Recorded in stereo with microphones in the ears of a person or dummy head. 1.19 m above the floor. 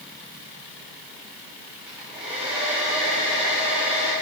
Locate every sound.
1.9 s a hair dryer: centre (ahead or behind), 3 m